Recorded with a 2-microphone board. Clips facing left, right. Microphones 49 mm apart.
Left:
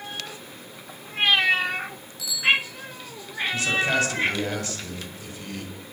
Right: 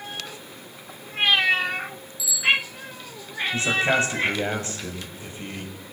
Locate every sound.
2.2 s a bicycle bell: 55° left (ahead or behind), 8.5 m
3.5 s a man speaking: 25° right (ahead or behind), 6.5 m